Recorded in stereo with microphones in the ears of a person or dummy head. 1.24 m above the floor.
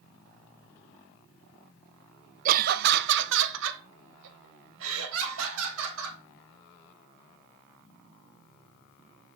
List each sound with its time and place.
2.5 s laughter: 45° right (ahead or behind), 0.7 m; by 6.2 s 80° right, 4 m